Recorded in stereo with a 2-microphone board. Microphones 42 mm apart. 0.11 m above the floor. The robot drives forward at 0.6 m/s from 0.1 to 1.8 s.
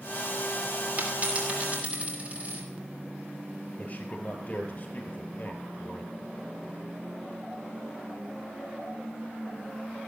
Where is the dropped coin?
40° right (ahead or behind), 5 m; by 2.6 s 35° right (ahead or behind), 5.5 m.